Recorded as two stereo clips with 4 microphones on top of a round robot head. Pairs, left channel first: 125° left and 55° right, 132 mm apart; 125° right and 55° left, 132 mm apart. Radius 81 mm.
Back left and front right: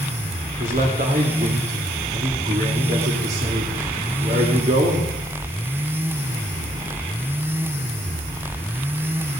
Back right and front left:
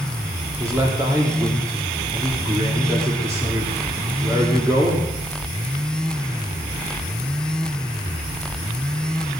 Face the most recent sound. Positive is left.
turn(degrees=-15)